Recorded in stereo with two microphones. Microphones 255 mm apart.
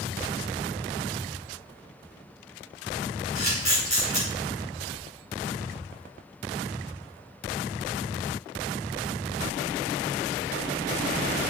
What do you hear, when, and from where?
3.4 s a camera shutter: 25° right (ahead or behind), 5.5 m